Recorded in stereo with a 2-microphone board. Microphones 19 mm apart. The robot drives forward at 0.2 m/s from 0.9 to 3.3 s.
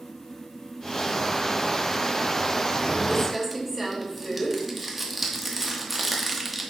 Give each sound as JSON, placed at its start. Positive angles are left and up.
{"t": 3.1, "sound": "crumpling", "side_deg": -5, "distance_m": 1.1}